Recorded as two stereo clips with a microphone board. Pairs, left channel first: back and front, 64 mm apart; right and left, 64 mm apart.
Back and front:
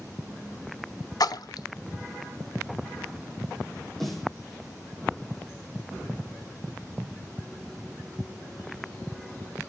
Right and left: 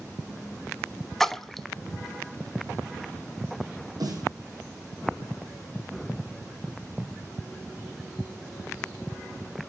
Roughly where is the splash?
Behind.